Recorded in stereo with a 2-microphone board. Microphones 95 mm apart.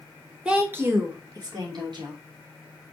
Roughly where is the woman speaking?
Centre.